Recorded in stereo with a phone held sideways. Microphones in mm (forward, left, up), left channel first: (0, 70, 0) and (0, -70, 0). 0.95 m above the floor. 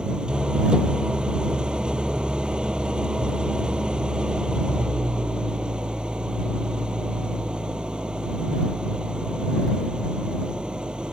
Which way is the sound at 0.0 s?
5° right (ahead or behind).